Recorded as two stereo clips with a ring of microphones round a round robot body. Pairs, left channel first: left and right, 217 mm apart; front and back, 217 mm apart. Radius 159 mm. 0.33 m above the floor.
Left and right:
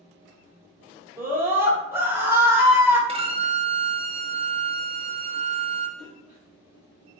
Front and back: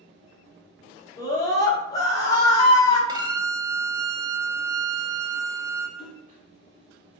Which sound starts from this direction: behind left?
A splash, at 6.0 s.